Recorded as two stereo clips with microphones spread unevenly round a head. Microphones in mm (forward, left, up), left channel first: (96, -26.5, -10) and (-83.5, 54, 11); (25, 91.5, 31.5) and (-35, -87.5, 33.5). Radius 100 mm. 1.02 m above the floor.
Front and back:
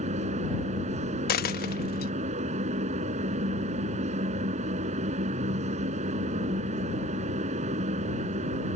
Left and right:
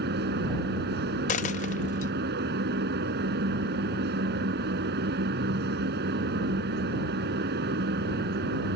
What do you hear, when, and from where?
0.0 s a fan: 145° right
1.3 s a dropped coin: 20° left